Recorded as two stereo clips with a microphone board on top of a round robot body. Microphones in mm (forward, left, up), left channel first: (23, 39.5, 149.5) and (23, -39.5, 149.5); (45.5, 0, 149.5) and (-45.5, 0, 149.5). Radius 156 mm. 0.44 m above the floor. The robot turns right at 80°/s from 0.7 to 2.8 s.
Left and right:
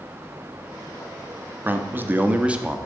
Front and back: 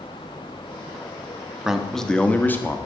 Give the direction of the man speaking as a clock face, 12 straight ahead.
4 o'clock.